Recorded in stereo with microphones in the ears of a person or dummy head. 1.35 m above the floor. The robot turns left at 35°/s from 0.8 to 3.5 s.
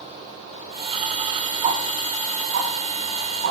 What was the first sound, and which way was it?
Ticking, 35° right (ahead or behind).